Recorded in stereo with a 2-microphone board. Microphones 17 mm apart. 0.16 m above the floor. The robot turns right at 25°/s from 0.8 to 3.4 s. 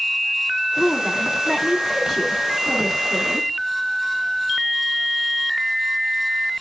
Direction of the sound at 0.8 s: 20° right (ahead or behind).